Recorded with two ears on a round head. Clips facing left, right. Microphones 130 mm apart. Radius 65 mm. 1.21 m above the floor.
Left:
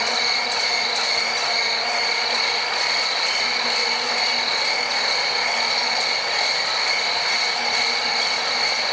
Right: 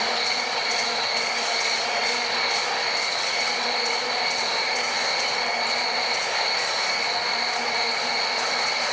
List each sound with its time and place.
0.0 s an insect: 80° left, 4 m